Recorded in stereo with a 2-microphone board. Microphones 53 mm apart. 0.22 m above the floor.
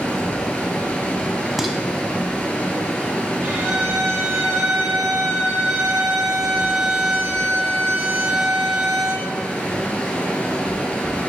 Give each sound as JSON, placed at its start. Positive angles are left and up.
{"t": 0.0, "sound": "running water", "side_deg": 25, "distance_m": 1.2}
{"t": 1.6, "sound": "dishes clattering", "side_deg": -5, "distance_m": 0.7}
{"t": 3.4, "sound": "a violin", "side_deg": -75, "distance_m": 3.0}